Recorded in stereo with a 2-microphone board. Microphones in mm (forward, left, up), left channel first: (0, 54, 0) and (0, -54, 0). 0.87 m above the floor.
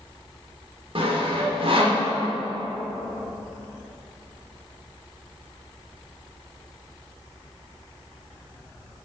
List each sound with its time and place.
0.9 s sawing: 60° right (ahead or behind), 1.5 m